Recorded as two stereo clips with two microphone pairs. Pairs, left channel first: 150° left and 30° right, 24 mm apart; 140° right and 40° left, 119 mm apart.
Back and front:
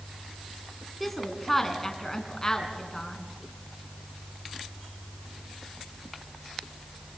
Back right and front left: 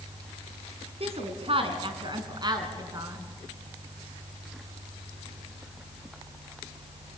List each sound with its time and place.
1.0 s a woman speaking: 65° left, 3.5 m; by 3.2 s 100° left, 4 m